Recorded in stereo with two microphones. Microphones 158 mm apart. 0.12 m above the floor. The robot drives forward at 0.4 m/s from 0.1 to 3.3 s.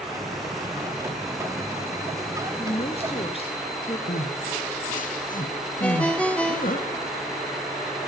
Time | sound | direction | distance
2.6 | a woman speaking | 40° left (ahead or behind) | 1.6 m
4.1 | crying | 60° left (ahead or behind) | 3 m
5.8 | a ringtone | 10° left (ahead or behind) | 1.6 m